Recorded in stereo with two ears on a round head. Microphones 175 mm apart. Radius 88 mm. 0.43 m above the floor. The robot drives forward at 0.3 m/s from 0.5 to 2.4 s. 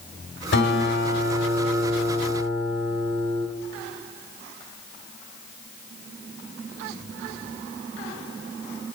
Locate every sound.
0.5 s a guitar: 60° left (ahead or behind), 1.8 m; by 3.5 s 50° left (ahead or behind), 2 m